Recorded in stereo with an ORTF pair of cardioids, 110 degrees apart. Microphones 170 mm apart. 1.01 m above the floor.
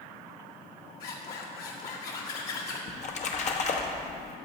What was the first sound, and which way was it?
A zipper, 60° left.